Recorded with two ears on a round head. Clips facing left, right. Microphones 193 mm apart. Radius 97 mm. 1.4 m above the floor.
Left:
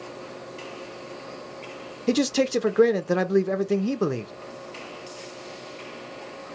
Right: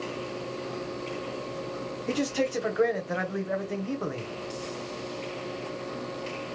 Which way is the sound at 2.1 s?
55° left (ahead or behind).